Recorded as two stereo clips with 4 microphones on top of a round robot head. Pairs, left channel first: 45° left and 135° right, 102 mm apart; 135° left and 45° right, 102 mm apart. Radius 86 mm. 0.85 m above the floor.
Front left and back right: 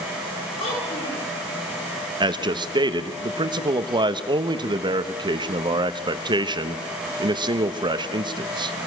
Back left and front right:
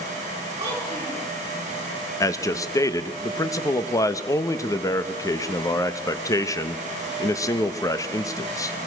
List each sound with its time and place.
0.6 s a child speaking: 20° left, 8 m
2.2 s a man speaking: 170° right, 1.0 m